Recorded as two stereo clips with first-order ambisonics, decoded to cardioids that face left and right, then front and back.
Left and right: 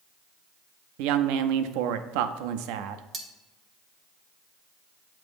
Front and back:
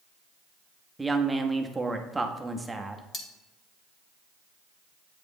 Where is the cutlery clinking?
40° right, 0.9 m.